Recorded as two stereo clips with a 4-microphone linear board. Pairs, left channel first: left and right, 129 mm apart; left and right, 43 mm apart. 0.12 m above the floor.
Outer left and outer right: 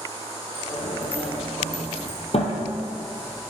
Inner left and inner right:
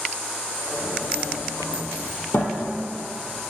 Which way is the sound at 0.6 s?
60° left (ahead or behind).